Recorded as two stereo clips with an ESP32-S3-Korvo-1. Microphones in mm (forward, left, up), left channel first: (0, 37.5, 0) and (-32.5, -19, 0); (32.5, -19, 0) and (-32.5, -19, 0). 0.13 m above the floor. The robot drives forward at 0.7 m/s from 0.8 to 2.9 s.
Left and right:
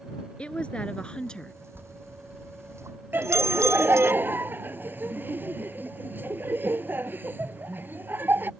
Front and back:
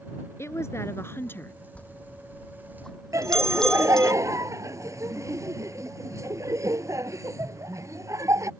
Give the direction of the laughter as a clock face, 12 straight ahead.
6 o'clock.